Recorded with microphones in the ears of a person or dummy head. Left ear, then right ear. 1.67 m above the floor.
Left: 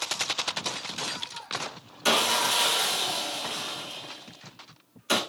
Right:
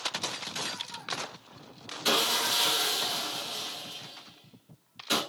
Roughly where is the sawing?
Left.